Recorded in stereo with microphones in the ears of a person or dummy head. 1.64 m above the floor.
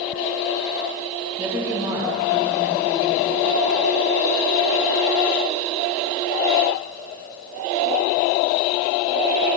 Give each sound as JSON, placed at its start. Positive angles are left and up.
{"t": 1.4, "sound": "a woman speaking", "side_deg": -15, "distance_m": 1.8}